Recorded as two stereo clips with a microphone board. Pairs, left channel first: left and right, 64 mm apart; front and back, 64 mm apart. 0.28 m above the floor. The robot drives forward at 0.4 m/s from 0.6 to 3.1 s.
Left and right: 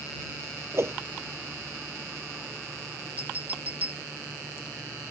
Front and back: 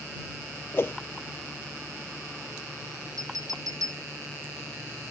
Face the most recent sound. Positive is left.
turn(degrees=-155)